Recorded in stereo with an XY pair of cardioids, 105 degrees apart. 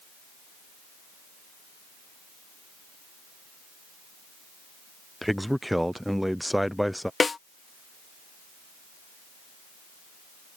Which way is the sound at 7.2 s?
30° left.